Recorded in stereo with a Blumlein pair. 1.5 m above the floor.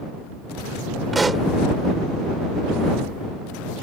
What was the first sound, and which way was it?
A pop, 10° right.